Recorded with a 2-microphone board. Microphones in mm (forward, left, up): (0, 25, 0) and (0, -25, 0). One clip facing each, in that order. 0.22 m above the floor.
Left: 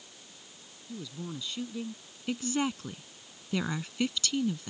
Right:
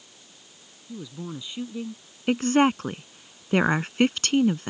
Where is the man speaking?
20° right (ahead or behind).